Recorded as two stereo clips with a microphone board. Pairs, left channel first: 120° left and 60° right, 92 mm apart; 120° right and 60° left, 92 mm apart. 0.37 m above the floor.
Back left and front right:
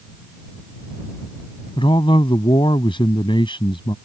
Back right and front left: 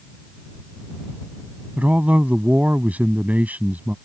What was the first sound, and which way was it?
A man speaking, 130° left.